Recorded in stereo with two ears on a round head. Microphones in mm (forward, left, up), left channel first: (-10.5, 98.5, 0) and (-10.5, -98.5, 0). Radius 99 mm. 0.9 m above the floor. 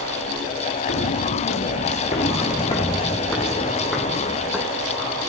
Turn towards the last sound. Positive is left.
turn(degrees=0)  # may be behind; listen again after turning